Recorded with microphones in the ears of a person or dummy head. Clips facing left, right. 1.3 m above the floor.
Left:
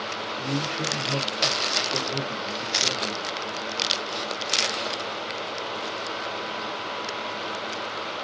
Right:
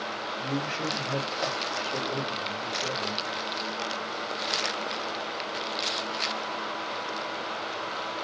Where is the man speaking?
15° left (ahead or behind), 0.9 m.